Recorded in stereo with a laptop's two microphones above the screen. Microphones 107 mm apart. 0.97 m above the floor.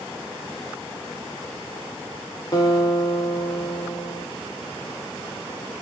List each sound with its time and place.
2.5 s a guitar: 35° left (ahead or behind), 3.5 m